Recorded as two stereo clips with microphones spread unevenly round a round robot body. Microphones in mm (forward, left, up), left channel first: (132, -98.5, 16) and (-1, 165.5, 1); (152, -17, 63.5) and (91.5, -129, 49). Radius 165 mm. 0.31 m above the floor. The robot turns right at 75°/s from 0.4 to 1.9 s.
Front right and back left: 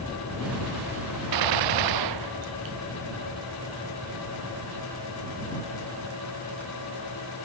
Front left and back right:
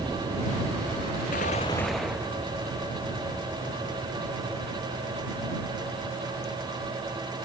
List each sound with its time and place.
1.3 s a gunshot: 110° left; by 2.8 s 150° left